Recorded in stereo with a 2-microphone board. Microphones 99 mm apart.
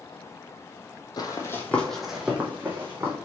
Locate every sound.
1.2 s running footsteps: 45° left (ahead or behind), 0.6 m; by 3.2 s 25° right (ahead or behind), 1.4 m